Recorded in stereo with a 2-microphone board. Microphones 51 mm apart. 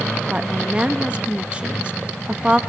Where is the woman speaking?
20° right (ahead or behind), 1.0 m.